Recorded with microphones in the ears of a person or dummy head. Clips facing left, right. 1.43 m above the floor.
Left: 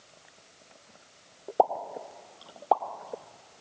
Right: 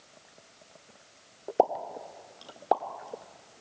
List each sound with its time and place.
1.6 s a pop: 25° right (ahead or behind), 1.8 m